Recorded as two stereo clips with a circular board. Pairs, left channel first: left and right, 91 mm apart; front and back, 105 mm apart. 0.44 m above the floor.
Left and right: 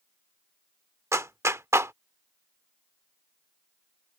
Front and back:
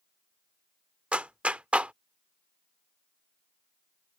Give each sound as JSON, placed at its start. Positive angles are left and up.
{"t": 1.1, "sound": "a clap", "azimuth_deg": -110}